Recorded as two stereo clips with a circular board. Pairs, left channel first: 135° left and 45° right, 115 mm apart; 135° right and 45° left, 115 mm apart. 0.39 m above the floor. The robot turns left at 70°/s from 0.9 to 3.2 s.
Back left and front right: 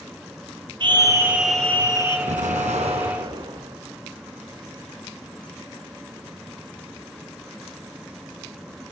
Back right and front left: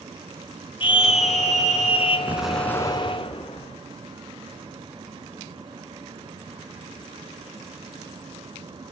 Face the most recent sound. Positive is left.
turn(degrees=-95)